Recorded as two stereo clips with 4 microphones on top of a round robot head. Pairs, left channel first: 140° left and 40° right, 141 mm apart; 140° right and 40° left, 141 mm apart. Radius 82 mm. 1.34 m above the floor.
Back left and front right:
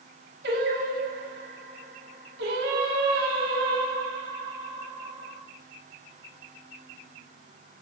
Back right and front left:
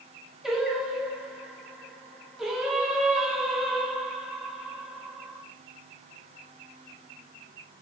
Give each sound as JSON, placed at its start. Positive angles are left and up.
{"t": 0.4, "sound": "singing", "azimuth_deg": -45, "distance_m": 2.0}